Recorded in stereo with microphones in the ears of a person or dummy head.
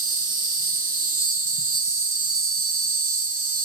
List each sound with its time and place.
0.0 s an insect: 45° right (ahead or behind), 2.5 m